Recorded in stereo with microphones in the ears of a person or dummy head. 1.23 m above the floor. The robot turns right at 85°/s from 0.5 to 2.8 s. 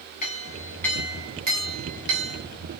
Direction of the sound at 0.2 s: 145° left.